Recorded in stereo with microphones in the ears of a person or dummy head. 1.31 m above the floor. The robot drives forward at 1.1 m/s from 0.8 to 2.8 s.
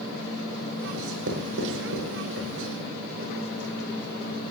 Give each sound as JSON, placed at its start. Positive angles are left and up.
{"t": 0.9, "sound": "writing", "side_deg": -80, "distance_m": 5.5}